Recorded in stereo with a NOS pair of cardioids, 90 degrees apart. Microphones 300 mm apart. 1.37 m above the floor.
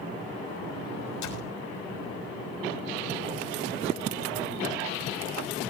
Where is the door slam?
65° left, 7 m.